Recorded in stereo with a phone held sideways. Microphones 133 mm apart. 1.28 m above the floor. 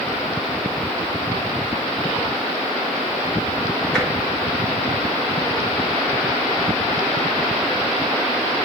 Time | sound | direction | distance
3.9 | tapping | 5° left (ahead or behind) | 3 m